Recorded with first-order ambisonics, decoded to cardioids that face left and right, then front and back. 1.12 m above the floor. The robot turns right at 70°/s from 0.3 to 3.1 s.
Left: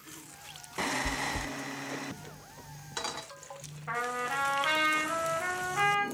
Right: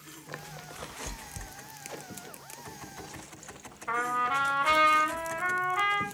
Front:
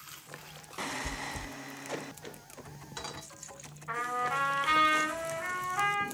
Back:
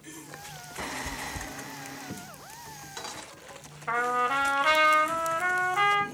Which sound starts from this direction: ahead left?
Chewing, at 1.0 s.